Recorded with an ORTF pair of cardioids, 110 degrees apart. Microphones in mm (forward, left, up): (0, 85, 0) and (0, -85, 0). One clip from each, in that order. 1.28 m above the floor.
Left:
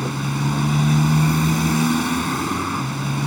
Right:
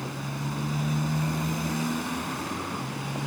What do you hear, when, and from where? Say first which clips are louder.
0.0 s a motorcycle: left 9 dB; 60° left